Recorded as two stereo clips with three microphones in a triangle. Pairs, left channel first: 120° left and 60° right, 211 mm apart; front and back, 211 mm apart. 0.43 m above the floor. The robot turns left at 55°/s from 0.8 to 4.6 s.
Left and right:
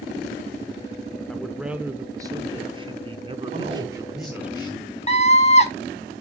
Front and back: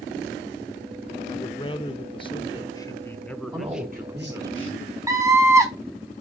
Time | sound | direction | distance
1.3 | a man speaking | 40° left | 0.8 m
3.5 | a man speaking | 110° right | 3 m
5.1 | a scream | 120° left | 1.3 m